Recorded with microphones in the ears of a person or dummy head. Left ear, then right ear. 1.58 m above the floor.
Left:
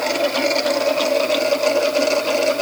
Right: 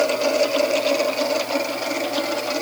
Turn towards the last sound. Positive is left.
No sound to turn to.